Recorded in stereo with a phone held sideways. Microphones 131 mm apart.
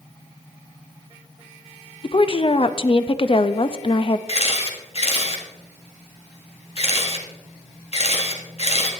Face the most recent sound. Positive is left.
turn(degrees=50)  # may be behind; listen again after turning